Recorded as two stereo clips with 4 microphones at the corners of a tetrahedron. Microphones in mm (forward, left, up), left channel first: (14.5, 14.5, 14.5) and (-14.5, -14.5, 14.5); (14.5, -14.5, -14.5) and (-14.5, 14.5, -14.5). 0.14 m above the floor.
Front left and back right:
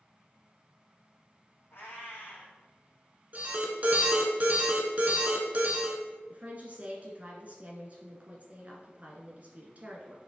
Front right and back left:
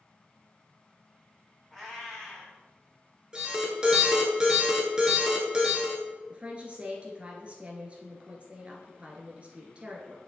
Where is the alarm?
160° right, 1.3 m.